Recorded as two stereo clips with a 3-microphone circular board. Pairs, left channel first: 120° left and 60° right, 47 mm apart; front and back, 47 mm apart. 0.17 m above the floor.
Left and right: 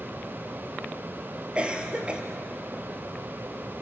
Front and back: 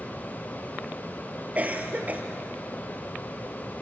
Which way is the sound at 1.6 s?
125° right.